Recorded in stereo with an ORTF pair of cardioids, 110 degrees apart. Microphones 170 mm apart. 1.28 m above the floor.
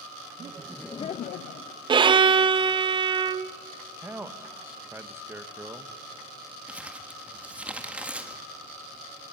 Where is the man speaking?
15° right, 1.4 m.